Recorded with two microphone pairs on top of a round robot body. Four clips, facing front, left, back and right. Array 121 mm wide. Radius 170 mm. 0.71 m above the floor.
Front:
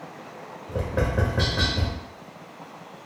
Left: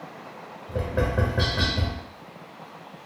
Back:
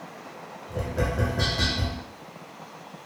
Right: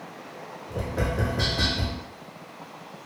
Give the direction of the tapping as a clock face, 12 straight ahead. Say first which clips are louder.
Left 3 dB, front 2 dB; 11 o'clock.